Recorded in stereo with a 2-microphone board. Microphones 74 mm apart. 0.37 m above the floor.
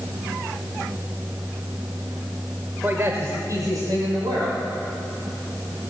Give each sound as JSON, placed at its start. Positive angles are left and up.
{"t": 2.8, "sound": "a man speaking", "side_deg": -25, "distance_m": 0.9}